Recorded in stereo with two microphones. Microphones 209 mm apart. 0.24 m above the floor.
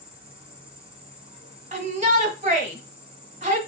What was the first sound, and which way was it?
An insect, 30° right (ahead or behind).